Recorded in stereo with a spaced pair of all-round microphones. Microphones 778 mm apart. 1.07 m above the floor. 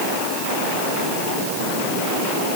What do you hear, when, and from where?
Only background noise.